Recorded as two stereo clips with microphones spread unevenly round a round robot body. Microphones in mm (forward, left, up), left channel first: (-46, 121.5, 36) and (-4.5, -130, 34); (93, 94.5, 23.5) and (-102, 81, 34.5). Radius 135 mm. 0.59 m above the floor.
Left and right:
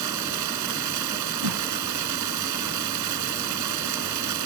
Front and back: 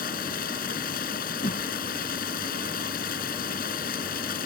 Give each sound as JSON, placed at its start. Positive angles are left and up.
{"t": 0.0, "sound": "running water", "azimuth_deg": -55}
{"t": 1.4, "sound": "a whoosh", "azimuth_deg": -65}